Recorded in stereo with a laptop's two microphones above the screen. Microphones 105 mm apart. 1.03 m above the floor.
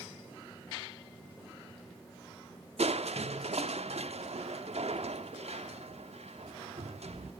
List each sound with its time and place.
2.8 s crushing: 80° right, 1.2 m